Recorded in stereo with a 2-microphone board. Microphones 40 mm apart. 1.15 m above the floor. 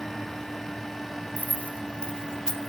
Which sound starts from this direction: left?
Keys jangling, at 1.4 s.